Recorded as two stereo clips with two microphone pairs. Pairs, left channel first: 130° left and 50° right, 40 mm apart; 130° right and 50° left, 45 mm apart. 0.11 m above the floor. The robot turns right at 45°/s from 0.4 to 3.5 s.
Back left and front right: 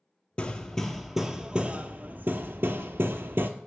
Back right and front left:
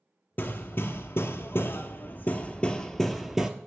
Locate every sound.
0.4 s hammering: 165° right, 0.5 m; by 3.5 s 30° right, 0.5 m